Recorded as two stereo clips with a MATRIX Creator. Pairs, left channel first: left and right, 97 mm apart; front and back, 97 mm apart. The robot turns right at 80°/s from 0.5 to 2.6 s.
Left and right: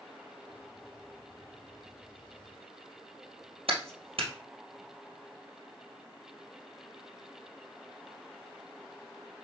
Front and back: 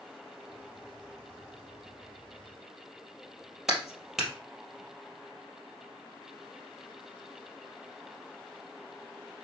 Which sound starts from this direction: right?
A clap, at 3.7 s.